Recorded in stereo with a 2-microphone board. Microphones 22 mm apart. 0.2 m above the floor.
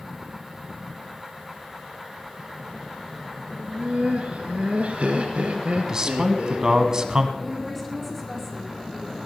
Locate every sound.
3.6 s laughter: 60° right (ahead or behind), 2 m
5.8 s a man speaking: 30° right (ahead or behind), 1.6 m
7.4 s a woman speaking: 5° left (ahead or behind), 5.5 m